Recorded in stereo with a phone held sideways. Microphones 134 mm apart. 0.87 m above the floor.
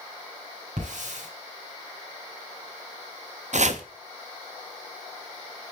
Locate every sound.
0.8 s a hiss: 65° right (ahead or behind), 4.5 m
3.5 s chopping: 60° right (ahead or behind), 0.9 m